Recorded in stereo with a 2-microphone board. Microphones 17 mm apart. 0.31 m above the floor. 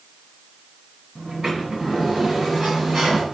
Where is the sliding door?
45° right (ahead or behind), 1.9 m.